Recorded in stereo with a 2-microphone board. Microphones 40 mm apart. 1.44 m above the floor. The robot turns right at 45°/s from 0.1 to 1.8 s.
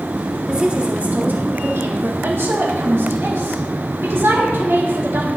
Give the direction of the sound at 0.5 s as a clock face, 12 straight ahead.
5 o'clock.